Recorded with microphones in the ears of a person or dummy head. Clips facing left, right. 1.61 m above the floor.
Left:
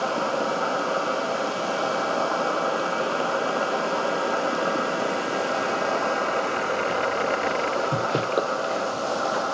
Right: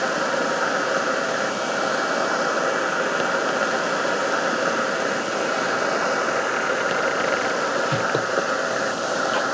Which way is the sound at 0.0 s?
25° right (ahead or behind).